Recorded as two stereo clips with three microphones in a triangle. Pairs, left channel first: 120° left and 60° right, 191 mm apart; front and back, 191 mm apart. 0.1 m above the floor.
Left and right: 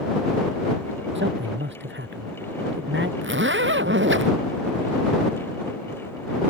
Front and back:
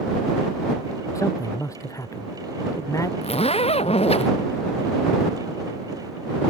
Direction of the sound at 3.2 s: 60° right.